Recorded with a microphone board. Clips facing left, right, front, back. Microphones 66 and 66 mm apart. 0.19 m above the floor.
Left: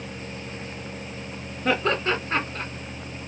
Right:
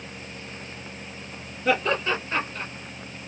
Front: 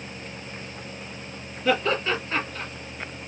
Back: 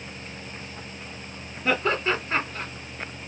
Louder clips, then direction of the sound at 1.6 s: Even, front 1 dB; 125° left.